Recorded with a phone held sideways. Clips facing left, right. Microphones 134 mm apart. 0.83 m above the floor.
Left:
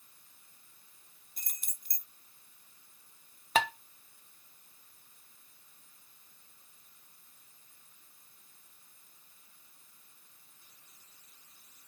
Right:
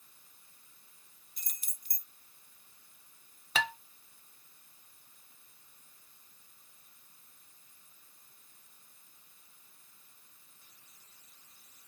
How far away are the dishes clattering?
About 1.3 m.